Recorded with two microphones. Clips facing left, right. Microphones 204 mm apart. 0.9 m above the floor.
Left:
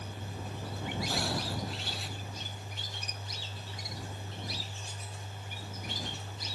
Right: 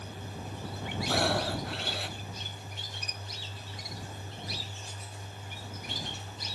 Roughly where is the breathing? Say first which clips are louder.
Right 9 dB; right.